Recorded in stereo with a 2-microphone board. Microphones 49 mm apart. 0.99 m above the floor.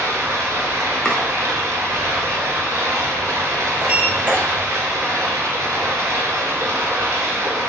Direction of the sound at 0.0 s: 75° right (ahead or behind).